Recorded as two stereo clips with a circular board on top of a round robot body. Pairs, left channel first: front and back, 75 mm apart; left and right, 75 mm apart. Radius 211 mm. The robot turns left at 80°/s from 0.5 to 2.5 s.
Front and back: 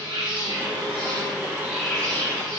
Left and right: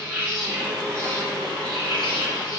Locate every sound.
0.0 s an insect: 160° right, 0.9 m; by 2.6 s 40° left, 0.9 m